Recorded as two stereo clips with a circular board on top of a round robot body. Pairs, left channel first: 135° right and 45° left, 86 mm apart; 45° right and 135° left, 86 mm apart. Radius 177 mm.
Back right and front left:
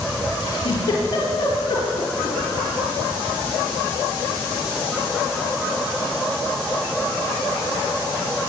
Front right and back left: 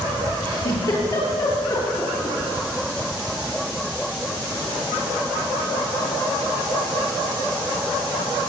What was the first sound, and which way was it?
A giggle, 90° right.